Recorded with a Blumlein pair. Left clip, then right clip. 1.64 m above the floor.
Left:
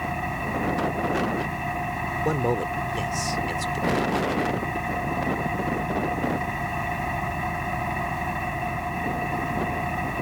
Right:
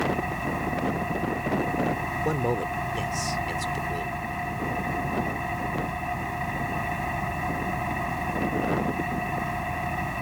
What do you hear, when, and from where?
0.0 s an engine running: 5° left
2.2 s a man speaking: 5° left